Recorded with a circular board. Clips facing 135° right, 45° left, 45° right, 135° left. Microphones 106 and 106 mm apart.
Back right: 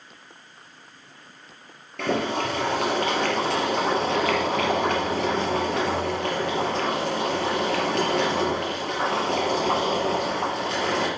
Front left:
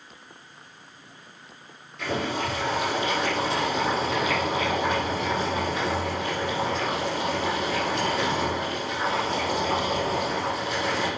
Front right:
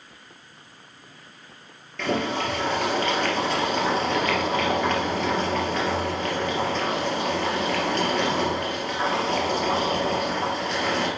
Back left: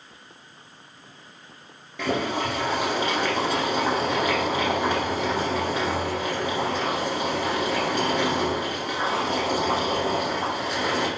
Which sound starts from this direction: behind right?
Boiling, at 2.0 s.